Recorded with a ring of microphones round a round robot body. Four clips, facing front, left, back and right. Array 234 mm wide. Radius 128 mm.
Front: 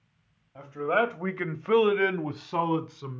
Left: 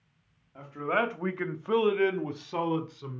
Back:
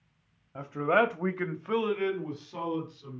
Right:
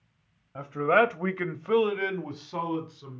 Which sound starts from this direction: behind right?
A man speaking, at 0.6 s.